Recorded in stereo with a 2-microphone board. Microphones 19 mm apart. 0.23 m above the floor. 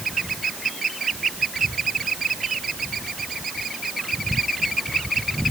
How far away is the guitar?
No guitar in this recording.